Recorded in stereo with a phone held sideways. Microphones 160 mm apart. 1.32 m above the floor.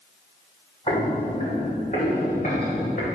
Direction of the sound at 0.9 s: 30° left (ahead or behind).